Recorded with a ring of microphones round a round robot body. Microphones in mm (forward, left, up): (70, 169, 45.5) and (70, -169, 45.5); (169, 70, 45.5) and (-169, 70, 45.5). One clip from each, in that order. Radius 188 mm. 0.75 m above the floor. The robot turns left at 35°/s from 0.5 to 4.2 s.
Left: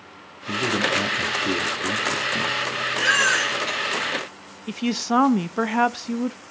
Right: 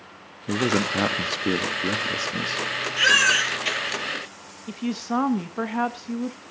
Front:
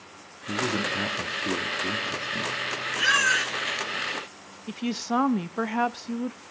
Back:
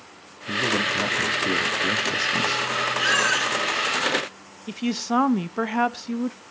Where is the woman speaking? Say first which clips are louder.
Left 5 dB, back 3 dB; 110° left, 0.5 m.